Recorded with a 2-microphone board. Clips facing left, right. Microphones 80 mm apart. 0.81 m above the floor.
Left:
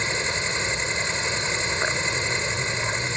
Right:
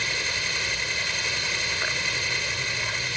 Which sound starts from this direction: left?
An insect, at 0.0 s.